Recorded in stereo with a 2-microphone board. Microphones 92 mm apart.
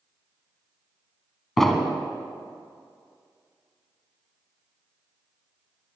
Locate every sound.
1.6 s an explosion: 5° left (ahead or behind), 1.3 m